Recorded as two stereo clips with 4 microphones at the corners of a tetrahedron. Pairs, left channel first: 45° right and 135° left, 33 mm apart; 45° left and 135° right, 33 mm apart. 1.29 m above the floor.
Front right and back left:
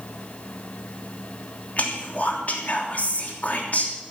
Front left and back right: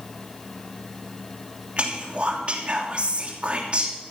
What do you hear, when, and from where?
1.8 s whispering: 85° right, 3 m